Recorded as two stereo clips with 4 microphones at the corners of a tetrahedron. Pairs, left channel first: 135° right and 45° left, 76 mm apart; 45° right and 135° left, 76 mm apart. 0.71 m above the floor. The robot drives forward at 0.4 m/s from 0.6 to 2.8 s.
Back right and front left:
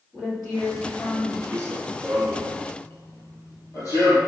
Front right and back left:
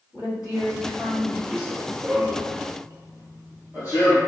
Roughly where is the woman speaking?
Ahead right.